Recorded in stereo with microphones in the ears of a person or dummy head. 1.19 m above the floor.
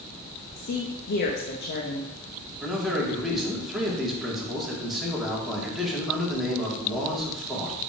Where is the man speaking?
5° right (ahead or behind), 2.5 m.